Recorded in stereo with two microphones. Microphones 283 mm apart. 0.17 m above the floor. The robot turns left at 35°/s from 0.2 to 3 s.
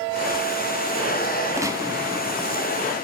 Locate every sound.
1.6 s a gunshot: 10° right (ahead or behind), 1.6 m; by 2.7 s 20° right (ahead or behind), 1.6 m